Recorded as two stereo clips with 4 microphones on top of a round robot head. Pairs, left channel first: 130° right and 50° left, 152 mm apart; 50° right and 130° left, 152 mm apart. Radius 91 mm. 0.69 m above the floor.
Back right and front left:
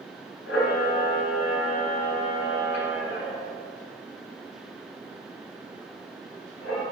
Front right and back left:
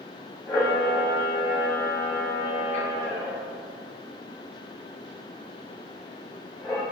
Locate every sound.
0.5 s a camera shutter: 125° right, 2.5 m